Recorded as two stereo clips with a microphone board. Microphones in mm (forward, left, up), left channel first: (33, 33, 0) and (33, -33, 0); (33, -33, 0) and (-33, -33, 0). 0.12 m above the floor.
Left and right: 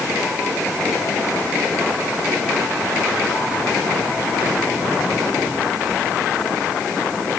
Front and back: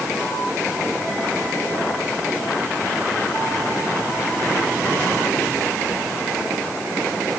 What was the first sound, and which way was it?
Only background noise.